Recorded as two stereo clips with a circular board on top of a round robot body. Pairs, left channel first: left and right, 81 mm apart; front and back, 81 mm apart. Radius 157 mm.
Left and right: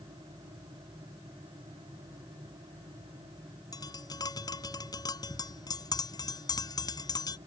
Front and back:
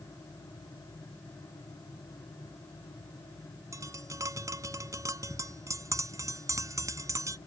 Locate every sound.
3.7 s tapping: 130° left